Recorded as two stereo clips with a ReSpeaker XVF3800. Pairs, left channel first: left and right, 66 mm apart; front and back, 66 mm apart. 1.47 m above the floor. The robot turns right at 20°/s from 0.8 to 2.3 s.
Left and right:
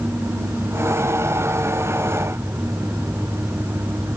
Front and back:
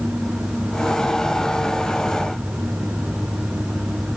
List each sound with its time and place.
Only background noise.